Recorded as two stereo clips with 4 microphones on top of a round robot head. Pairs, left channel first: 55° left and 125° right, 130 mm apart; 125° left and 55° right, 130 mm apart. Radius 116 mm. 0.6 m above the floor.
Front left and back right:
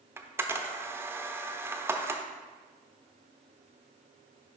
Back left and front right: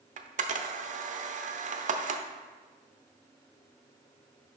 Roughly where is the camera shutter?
Ahead right.